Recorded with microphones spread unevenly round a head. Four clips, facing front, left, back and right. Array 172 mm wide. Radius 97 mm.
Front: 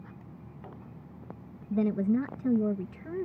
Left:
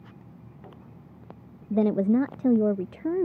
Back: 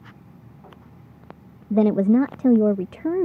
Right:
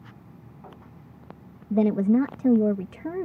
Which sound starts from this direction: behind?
A woman speaking, at 1.7 s.